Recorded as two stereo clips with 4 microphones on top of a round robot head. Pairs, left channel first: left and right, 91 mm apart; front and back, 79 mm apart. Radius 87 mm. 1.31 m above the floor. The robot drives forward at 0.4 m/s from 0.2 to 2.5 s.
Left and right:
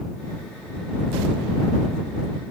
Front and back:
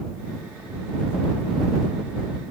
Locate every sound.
Only background noise.